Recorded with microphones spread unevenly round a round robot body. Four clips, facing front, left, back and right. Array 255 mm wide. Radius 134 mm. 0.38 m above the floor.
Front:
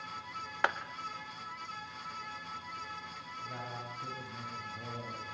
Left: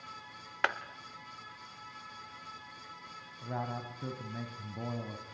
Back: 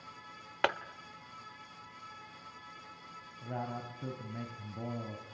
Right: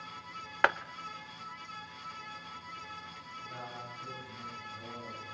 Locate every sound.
0.6 s a clap: 130° right, 0.9 m
3.4 s a man speaking: 130° left, 2.5 m